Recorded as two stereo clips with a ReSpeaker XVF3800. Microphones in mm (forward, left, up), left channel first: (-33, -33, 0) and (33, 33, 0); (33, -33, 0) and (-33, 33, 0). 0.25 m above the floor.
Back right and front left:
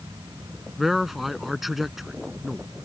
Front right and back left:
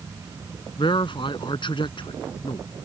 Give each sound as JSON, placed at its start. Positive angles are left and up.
{"t": 0.8, "sound": "a man speaking", "azimuth_deg": -45}